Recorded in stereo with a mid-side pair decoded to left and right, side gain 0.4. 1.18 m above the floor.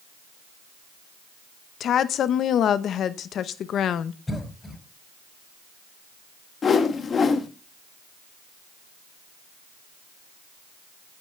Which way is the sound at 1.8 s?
70° left.